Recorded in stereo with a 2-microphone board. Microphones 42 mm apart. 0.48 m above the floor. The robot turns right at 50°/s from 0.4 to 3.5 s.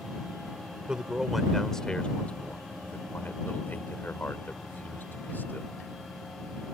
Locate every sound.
0.9 s a man speaking: 20° right (ahead or behind); by 5.7 s 50° left (ahead or behind)